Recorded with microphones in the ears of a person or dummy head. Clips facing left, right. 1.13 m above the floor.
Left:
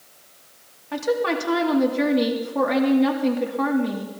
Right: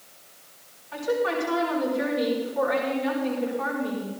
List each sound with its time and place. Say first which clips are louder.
0.9 s a woman speaking: left 3 dB; 75° left (ahead or behind), 2 m